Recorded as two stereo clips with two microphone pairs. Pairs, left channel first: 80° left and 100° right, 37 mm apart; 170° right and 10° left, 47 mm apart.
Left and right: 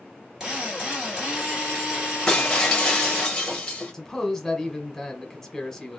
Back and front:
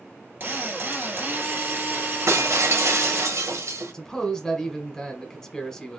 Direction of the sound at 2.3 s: Straight ahead.